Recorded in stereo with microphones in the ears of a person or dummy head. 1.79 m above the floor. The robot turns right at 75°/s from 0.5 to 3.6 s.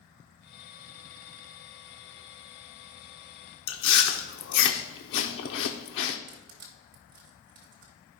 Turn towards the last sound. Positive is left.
turn(degrees=-40)  # may be behind; listen again after turning